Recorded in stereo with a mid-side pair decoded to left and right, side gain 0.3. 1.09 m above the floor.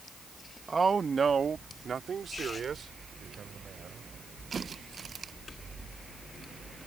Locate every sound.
0.7 s a man speaking: 35° right; by 4.1 s 65° right